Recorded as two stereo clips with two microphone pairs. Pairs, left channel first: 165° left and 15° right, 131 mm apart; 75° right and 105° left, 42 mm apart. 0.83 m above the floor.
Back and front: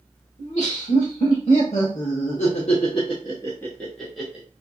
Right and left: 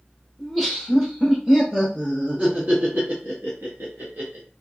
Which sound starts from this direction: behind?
Laughter, at 0.4 s.